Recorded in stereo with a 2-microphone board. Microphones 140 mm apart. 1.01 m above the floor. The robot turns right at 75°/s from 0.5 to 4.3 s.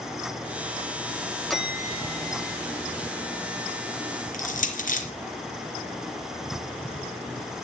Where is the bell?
Straight behind, 2.5 m; by 2.6 s 100° right, 2.5 m.